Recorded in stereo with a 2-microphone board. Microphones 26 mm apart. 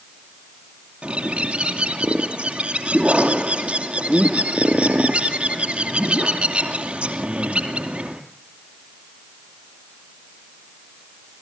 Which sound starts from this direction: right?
A bird, at 1.0 s.